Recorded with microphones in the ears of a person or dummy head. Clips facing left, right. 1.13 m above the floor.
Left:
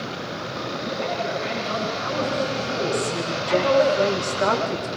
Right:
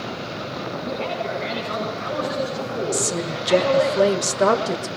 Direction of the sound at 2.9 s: 50° right (ahead or behind).